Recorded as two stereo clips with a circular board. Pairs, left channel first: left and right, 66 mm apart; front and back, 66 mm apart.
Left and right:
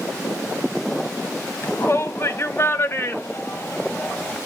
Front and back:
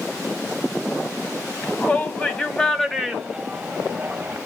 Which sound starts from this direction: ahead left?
A shout, at 1.6 s.